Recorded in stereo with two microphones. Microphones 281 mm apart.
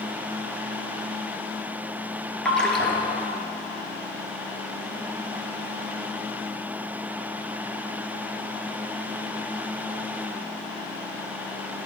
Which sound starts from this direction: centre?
A splash, at 2.5 s.